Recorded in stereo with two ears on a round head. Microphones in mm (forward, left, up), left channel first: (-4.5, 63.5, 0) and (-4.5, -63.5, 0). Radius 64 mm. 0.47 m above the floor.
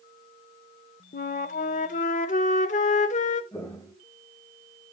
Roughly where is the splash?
I don't hear a splash.